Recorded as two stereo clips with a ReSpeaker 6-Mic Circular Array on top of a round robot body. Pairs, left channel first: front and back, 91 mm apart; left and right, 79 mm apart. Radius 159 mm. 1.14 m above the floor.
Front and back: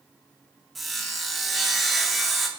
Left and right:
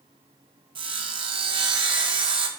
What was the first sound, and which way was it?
Sawing, 90° right.